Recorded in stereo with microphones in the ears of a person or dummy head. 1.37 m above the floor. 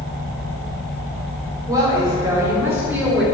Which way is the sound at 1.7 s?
20° right (ahead or behind).